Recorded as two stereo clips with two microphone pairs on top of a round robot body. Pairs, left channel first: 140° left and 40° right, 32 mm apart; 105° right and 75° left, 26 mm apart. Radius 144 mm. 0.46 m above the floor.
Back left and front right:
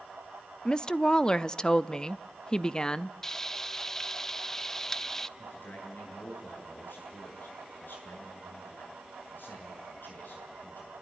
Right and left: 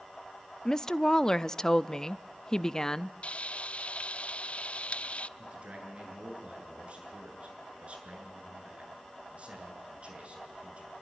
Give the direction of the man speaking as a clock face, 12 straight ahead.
8 o'clock.